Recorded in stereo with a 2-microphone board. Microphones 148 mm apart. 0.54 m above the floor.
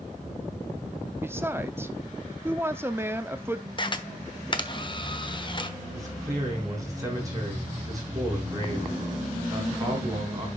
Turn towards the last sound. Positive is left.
turn(degrees=-25)  # may be behind; listen again after turning